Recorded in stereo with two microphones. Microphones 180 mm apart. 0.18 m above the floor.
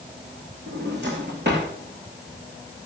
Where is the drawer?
65° right (ahead or behind), 5.5 m.